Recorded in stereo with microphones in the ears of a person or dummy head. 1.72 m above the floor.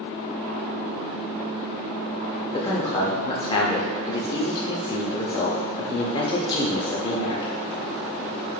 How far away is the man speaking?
About 0.7 m.